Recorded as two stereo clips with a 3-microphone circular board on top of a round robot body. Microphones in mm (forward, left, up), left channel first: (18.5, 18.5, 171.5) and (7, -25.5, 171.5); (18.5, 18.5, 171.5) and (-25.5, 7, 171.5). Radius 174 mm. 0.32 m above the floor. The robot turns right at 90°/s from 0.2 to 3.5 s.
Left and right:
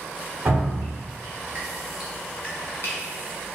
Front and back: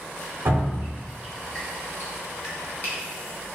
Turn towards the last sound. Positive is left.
turn(degrees=115)